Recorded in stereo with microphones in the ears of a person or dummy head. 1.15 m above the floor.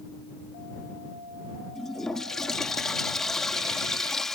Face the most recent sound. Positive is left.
turn(degrees=5)  # may be behind; listen again after turning